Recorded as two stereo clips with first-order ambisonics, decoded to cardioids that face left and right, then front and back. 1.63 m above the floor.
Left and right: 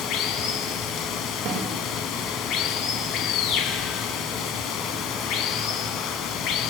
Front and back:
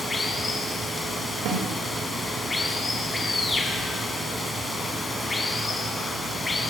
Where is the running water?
75° left, 2 m.